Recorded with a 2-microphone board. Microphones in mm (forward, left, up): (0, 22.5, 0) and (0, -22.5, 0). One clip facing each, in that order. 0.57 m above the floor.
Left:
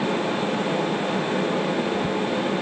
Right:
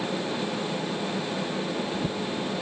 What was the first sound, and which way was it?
Only background noise.